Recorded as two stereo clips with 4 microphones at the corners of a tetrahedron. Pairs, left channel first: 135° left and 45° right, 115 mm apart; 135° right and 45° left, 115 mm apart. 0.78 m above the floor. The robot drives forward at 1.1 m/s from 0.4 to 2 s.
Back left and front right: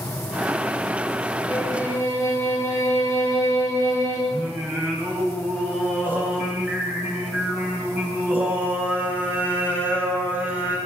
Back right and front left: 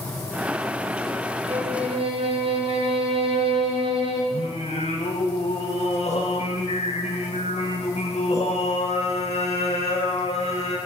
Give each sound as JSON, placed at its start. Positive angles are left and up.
{"t": 1.5, "sound": "a violin", "azimuth_deg": 65, "distance_m": 4.0}
{"t": 4.3, "sound": "singing", "azimuth_deg": -120, "distance_m": 5.5}